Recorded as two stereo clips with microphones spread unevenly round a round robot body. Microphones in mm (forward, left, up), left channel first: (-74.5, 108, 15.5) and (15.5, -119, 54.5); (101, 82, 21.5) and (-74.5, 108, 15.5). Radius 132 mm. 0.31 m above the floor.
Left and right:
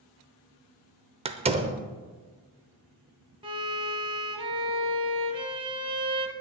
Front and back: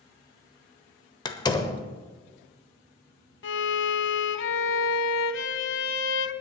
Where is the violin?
5° left, 0.7 m.